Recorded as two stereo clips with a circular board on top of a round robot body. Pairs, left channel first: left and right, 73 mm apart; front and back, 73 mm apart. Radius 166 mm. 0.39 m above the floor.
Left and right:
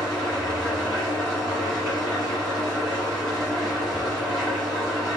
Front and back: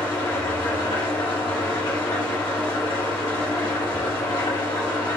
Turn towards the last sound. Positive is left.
turn(degrees=0)